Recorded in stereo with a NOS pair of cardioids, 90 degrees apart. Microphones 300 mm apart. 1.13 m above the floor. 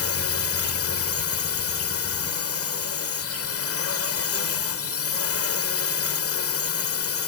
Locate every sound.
0.0 s a drone: 50° left